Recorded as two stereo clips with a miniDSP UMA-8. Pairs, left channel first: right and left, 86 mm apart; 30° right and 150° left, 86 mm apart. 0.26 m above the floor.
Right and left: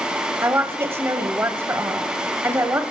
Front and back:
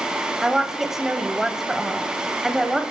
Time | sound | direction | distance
0.4 | a woman speaking | 70° left | 1.1 m